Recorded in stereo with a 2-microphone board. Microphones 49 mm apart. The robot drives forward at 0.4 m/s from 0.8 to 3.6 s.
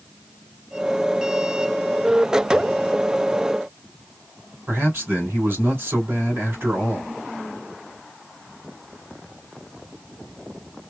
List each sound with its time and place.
4.7 s a man speaking: 55° right (ahead or behind), 3 m